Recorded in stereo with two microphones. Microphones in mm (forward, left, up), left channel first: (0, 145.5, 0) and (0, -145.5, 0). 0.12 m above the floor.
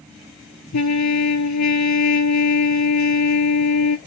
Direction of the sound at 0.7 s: 70° left (ahead or behind).